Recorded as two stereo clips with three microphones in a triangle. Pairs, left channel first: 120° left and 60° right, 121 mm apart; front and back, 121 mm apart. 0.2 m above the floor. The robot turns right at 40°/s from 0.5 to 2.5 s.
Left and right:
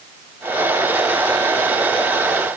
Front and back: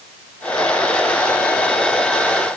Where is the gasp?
I don't hear a gasp.